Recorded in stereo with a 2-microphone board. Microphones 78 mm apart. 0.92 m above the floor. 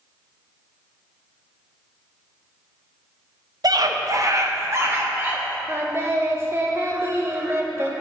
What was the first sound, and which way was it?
A scream, 55° right (ahead or behind).